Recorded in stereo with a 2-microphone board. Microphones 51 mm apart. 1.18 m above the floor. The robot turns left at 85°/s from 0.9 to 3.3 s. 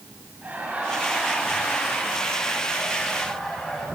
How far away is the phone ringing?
I don't hear a phone ringing.